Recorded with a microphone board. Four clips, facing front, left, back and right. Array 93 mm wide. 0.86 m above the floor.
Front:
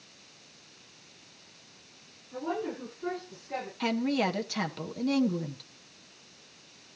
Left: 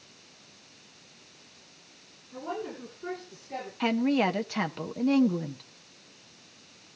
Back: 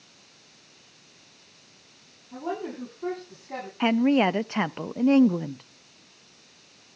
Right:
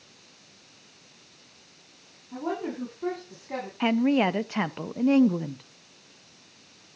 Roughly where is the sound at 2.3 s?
Behind right.